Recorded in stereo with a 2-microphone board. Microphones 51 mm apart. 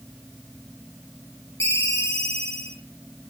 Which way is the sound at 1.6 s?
60° left (ahead or behind).